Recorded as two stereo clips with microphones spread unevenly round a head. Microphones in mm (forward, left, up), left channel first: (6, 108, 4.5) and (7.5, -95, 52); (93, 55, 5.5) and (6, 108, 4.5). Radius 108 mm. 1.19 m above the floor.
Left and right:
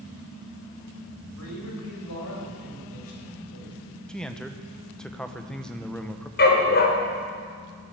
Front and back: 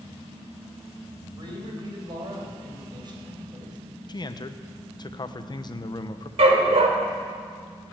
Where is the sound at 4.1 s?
10° left, 0.9 m.